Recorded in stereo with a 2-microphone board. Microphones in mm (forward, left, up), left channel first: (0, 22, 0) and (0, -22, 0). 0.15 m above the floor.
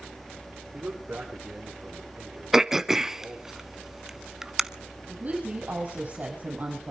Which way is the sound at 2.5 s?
10° right (ahead or behind).